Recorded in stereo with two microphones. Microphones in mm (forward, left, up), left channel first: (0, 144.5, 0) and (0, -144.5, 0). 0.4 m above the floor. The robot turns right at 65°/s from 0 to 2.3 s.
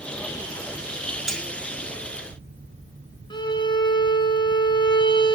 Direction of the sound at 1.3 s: Centre (ahead or behind).